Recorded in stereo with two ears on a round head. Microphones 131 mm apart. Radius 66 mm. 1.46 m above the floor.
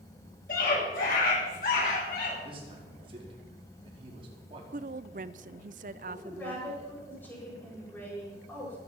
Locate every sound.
0.5 s a scream: 60° left (ahead or behind), 8 m
2.4 s a man speaking: 40° right (ahead or behind), 4.5 m
4.7 s a woman speaking: 55° right (ahead or behind), 0.6 m
6.0 s a woman speaking: 10° left (ahead or behind), 6.5 m